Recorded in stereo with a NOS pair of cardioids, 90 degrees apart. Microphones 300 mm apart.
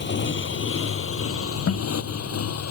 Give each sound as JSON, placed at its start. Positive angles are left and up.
{"t": 0.0, "sound": "a motorcycle", "azimuth_deg": 40}
{"t": 1.7, "sound": "a guitar", "azimuth_deg": 50}